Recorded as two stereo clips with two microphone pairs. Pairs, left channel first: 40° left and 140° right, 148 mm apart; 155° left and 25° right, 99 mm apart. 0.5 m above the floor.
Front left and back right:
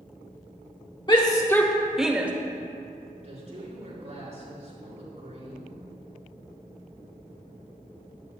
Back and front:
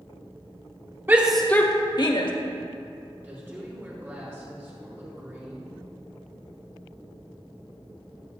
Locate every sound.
1.1 s a shout: 20° left, 1.0 m; by 2.3 s 145° left, 1.6 m
3.2 s a woman speaking: 95° right, 5.5 m